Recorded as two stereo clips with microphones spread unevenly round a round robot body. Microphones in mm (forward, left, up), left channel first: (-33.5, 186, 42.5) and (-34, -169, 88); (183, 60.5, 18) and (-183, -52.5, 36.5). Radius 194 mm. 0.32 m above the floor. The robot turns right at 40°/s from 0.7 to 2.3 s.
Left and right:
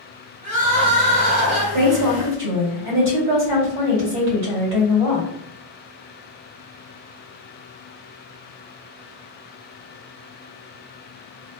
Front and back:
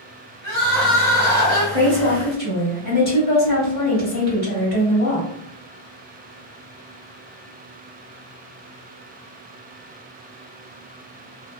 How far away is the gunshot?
No gunshot in this recording.